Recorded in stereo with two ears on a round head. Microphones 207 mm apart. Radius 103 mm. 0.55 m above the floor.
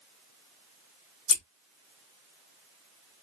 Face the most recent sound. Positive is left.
turn(degrees=60)  # may be behind; listen again after turning